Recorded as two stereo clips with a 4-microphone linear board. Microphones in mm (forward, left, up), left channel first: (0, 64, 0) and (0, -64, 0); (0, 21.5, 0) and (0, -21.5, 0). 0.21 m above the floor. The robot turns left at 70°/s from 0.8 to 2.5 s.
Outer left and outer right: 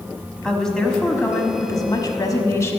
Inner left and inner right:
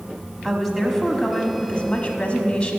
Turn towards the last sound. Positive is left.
turn(degrees=25)  # may be behind; listen again after turning